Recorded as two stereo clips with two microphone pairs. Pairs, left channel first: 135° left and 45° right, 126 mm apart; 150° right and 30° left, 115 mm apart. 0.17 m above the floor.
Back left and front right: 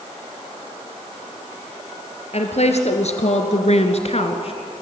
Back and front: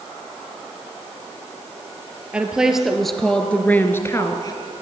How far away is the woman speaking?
About 3 m.